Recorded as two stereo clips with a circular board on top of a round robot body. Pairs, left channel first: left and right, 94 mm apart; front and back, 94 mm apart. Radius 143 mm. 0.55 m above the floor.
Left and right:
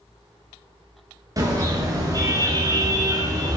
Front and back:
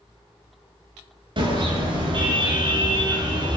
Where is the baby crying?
No baby crying in this recording.